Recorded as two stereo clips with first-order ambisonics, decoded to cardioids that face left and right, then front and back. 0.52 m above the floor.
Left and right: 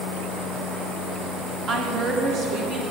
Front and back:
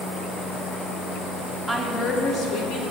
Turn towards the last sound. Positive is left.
turn(degrees=-30)